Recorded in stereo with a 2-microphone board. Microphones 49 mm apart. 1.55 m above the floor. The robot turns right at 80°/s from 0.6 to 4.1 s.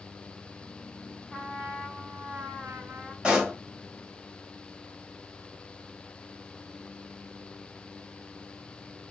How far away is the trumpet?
About 2.5 m.